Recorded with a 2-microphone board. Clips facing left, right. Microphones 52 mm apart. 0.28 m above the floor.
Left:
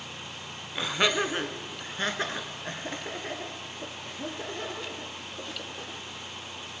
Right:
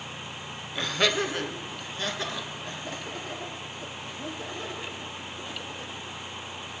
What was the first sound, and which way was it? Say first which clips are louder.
Laughter: even; 10° left (ahead or behind).